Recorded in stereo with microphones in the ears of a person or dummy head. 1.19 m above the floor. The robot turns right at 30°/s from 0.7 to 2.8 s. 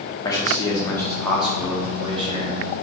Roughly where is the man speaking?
Behind.